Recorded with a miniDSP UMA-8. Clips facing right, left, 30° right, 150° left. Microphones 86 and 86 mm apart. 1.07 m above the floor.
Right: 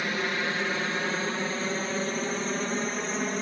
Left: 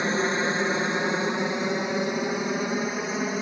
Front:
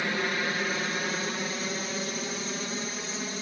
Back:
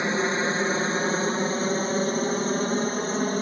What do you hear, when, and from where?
0.0 s a helicopter: 115° left; by 3.4 s 170° left